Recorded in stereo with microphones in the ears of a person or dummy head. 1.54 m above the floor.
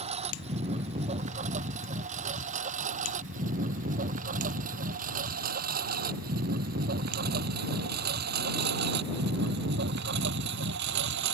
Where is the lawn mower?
30° right (ahead or behind); by 11.3 s 65° right (ahead or behind).